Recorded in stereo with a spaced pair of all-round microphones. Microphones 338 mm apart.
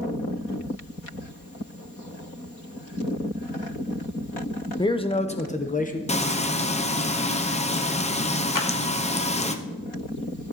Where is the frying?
20° left (ahead or behind), 0.6 m.